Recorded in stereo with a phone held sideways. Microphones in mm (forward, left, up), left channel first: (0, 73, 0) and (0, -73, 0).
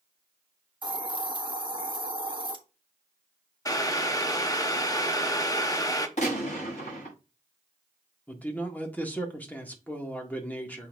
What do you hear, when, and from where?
0.8 s a hiss: 35° right (ahead or behind), 1.4 m
3.6 s boiling: 25° left (ahead or behind), 0.8 m
6.2 s a gunshot: 55° left (ahead or behind), 5 m
8.3 s a man speaking: 10° left (ahead or behind), 1.6 m